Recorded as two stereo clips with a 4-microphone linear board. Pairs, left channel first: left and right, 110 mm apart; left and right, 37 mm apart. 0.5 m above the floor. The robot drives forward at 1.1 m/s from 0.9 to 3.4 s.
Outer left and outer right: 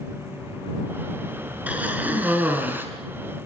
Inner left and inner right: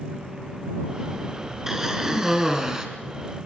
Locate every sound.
1.7 s a cough: 15° right (ahead or behind), 6 m; by 2.9 s 20° right (ahead or behind), 4.5 m